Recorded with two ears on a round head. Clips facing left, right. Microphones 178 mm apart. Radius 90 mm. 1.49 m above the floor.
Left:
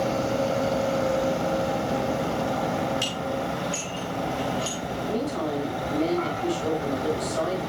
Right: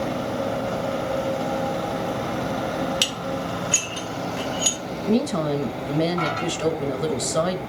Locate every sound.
3.0 s dishes clattering: 75° right (ahead or behind), 2.5 m
5.1 s a woman speaking: 75° right (ahead or behind), 2 m